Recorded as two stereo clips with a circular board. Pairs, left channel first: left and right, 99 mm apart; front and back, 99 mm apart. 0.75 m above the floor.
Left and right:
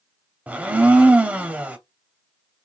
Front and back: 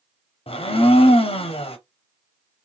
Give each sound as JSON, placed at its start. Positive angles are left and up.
{"t": 0.5, "sound": "a blender", "azimuth_deg": -15, "distance_m": 0.5}